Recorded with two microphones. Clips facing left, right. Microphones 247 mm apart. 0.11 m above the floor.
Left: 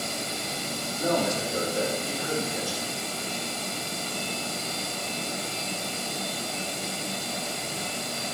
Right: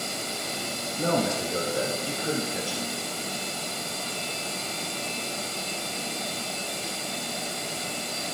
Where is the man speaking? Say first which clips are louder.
Even; 60° right (ahead or behind), 4 m.